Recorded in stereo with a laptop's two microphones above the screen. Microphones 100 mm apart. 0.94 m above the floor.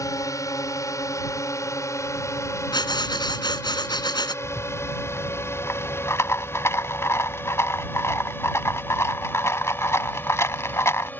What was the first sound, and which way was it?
A drone, 35° left (ahead or behind).